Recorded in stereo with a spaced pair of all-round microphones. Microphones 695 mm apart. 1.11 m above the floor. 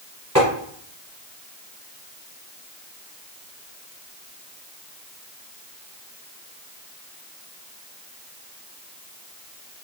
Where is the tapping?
25° right (ahead or behind), 1.4 m.